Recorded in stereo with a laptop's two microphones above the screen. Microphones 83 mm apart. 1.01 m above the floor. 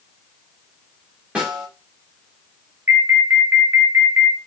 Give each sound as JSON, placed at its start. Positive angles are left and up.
{"t": 1.4, "sound": "a snare drum", "side_deg": -15, "distance_m": 1.5}
{"t": 2.9, "sound": "an alarm", "side_deg": -30, "distance_m": 0.7}